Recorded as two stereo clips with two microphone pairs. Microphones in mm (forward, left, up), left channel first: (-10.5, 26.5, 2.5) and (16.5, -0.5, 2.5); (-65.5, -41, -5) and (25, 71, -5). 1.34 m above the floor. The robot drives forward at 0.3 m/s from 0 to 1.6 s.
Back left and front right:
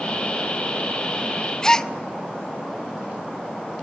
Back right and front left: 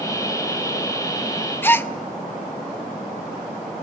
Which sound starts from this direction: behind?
A gasp, at 1.6 s.